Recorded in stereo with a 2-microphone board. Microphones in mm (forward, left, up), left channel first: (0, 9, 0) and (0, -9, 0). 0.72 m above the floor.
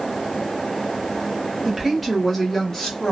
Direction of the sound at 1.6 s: 10° right (ahead or behind).